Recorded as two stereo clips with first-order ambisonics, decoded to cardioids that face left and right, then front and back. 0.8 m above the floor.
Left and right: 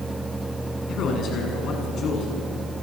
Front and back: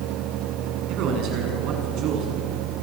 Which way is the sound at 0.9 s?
140° left.